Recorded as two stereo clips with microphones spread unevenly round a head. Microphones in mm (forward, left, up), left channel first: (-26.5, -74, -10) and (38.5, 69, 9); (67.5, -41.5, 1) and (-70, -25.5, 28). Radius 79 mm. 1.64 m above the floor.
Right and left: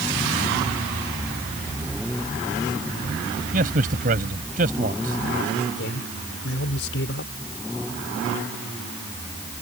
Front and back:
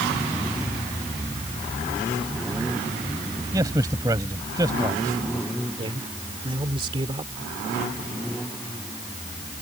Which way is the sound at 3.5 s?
105° left.